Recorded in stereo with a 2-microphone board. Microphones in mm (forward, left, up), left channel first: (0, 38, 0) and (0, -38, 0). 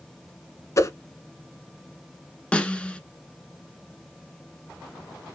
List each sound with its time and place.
0.8 s a whoosh: 40° left (ahead or behind), 0.8 m
2.5 s a snare drum: 15° left (ahead or behind), 0.9 m